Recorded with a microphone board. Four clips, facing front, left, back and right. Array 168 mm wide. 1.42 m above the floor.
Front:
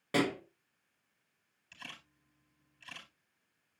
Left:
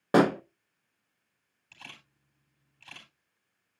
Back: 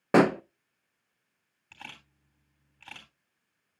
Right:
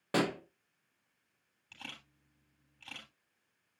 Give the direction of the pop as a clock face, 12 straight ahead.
7 o'clock.